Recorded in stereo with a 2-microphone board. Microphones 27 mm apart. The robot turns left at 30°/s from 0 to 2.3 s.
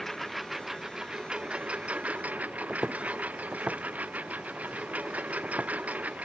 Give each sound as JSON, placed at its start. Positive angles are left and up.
{"t": 0.0, "sound": "a lawn mower", "azimuth_deg": 10}
{"t": 2.7, "sound": "footsteps", "side_deg": -35}